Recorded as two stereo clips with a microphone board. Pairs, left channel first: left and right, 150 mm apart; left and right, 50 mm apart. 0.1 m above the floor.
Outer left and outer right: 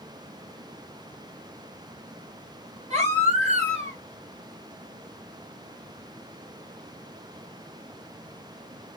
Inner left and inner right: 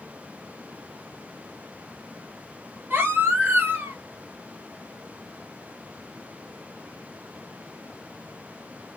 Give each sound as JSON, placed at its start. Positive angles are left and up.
{"t": 2.9, "sound": "a baby crying", "side_deg": -45, "distance_m": 1.7}